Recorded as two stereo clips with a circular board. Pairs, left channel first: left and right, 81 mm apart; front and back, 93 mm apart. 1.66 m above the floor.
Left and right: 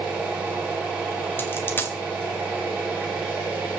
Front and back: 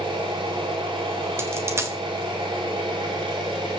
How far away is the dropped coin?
About 1.7 m.